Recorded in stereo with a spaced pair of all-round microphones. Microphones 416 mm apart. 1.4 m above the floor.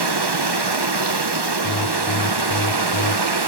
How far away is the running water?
About 1.1 m.